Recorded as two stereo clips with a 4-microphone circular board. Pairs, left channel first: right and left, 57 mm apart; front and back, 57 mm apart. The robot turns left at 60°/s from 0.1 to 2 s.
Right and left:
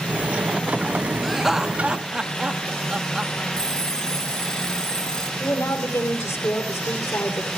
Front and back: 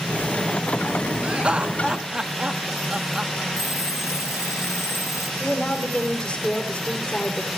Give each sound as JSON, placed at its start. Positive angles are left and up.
{"t": 1.2, "sound": "laughter", "azimuth_deg": 175, "distance_m": 0.8}
{"t": 3.5, "sound": "an alarm clock", "azimuth_deg": -10, "distance_m": 6.0}
{"t": 5.4, "sound": "a woman speaking", "azimuth_deg": -65, "distance_m": 2.5}